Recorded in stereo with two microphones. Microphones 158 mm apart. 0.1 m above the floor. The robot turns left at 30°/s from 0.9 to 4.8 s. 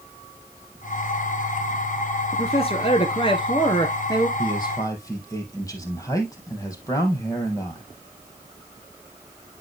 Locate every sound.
2.3 s a man speaking: 95° left, 1.4 m; by 4.3 s 40° left, 1.4 m
4.4 s a man speaking: 35° left (ahead or behind), 3 m; by 7.9 s 20° left (ahead or behind), 3 m